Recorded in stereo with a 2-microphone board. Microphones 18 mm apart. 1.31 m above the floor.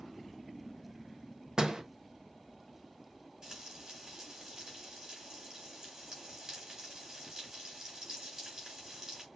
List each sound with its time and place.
1.6 s a door slam: 40° right (ahead or behind), 1.0 m
3.4 s frying: 35° right (ahead or behind), 4 m